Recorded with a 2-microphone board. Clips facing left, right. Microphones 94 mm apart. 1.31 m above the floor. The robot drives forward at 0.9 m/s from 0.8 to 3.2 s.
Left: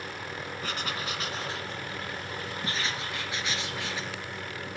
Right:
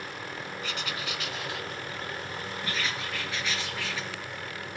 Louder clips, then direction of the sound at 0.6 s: Left 2 dB; 40° left (ahead or behind).